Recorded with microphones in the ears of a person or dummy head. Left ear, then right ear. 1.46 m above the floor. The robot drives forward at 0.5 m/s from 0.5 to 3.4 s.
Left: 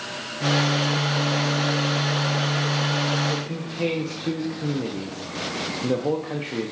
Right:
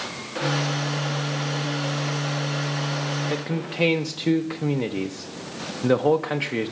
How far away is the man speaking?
About 0.6 m.